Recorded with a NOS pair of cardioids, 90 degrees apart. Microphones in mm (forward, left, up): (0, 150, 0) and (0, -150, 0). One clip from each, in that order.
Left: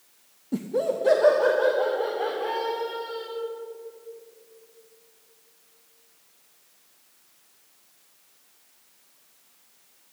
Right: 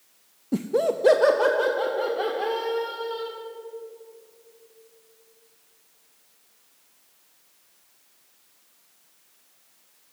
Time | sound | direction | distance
0.5 | laughter | 20° right | 0.6 m